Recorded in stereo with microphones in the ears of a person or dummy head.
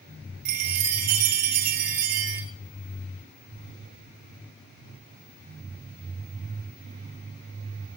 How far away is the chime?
About 2 m.